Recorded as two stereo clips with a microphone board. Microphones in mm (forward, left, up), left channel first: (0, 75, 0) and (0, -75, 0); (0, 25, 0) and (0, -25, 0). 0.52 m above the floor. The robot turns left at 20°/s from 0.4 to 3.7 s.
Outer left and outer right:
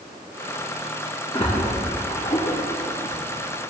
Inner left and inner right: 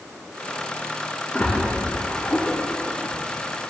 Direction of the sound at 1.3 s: 40° left (ahead or behind).